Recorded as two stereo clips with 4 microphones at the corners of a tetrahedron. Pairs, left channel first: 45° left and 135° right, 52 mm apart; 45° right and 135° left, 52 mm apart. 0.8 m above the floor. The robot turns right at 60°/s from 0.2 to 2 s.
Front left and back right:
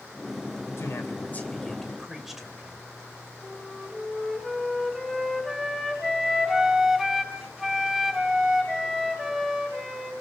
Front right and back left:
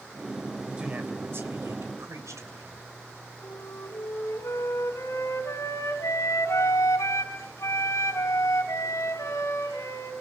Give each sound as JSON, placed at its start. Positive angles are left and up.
{"t": 0.8, "sound": "a man speaking", "azimuth_deg": 65, "distance_m": 3.0}
{"t": 3.4, "sound": "a flute", "azimuth_deg": -45, "distance_m": 4.0}